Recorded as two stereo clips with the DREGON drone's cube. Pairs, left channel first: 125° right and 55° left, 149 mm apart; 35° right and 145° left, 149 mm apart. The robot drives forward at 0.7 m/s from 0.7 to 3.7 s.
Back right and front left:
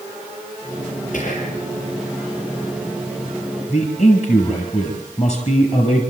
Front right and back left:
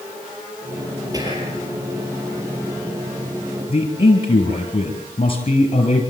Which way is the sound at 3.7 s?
85° right.